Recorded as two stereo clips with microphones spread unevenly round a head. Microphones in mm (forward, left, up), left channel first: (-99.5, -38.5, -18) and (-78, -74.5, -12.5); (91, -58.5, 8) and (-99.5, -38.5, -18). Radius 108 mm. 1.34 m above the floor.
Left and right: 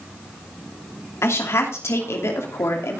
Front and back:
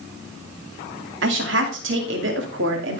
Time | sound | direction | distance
1.2 | a woman speaking | 130° left | 2.5 m